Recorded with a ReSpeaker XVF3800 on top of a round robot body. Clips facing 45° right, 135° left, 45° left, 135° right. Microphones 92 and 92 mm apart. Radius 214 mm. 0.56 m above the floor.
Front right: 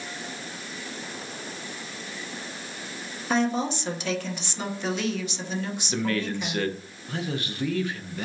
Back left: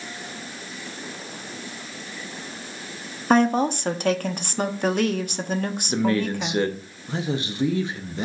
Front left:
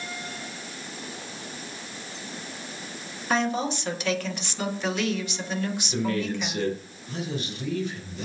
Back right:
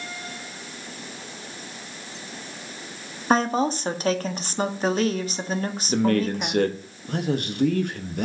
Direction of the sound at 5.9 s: 160° right.